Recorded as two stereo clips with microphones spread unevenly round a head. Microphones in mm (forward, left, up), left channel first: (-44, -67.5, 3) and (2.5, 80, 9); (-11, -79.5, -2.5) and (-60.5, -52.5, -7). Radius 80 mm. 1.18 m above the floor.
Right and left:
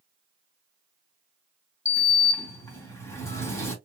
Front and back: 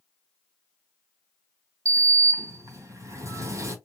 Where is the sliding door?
Straight behind, 2.5 m.